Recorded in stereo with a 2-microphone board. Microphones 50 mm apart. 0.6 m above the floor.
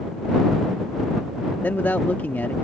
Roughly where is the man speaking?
Left.